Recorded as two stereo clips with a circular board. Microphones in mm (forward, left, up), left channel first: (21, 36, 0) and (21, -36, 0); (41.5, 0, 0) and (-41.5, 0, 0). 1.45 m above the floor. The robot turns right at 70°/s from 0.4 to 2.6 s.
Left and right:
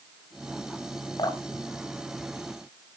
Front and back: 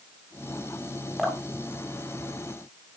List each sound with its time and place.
1.2 s dripping: 85° left, 2 m; by 1.4 s 100° left, 2 m